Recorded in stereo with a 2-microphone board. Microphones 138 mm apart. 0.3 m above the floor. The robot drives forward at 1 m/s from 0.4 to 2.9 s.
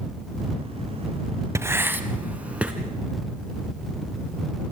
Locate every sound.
1.6 s writing: 20° right (ahead or behind), 0.8 m; by 2.7 s 10° right (ahead or behind), 1.8 m